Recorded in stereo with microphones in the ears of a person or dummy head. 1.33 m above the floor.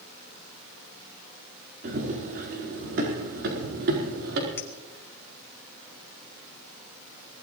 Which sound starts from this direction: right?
Running footsteps, at 1.8 s.